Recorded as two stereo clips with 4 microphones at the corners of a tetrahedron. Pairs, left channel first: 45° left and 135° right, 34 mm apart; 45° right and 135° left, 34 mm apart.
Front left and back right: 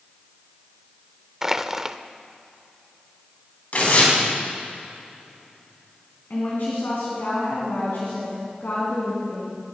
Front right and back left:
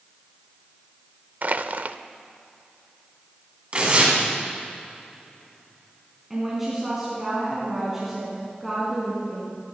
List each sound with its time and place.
1.4 s crushing: 155° left, 0.5 m
3.7 s tearing paper: 80° left, 4 m
6.3 s a woman speaking: 55° left, 3.5 m